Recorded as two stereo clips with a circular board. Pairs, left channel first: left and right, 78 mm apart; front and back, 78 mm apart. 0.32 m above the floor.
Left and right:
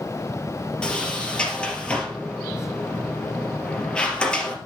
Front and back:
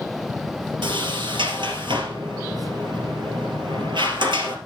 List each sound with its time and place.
0.8 s a sliding door: 170° left, 3 m